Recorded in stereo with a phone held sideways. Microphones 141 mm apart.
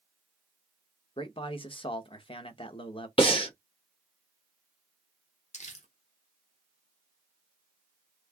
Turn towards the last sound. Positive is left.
turn(degrees=55)  # may be behind; listen again after turning